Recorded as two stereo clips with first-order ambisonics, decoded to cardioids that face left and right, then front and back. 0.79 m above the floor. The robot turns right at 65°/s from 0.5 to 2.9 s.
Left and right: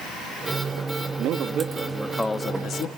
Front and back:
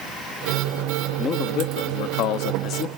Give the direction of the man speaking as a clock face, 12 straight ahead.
2 o'clock.